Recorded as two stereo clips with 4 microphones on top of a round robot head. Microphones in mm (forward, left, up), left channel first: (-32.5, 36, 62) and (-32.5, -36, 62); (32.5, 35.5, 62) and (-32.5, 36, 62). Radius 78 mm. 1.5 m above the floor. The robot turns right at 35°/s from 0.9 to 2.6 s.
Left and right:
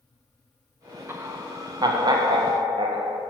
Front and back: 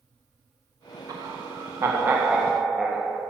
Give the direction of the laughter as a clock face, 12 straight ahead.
5 o'clock.